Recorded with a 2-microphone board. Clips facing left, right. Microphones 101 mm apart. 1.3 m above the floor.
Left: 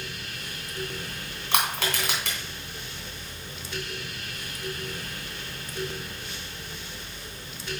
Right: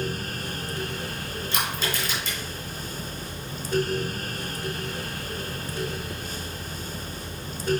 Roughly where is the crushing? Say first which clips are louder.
Left 3 dB; left.